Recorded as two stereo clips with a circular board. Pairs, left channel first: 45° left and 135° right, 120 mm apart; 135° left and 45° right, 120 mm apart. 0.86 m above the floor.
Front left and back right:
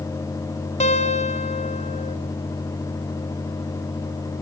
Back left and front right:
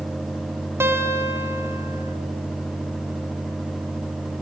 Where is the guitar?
25° left, 2.5 m.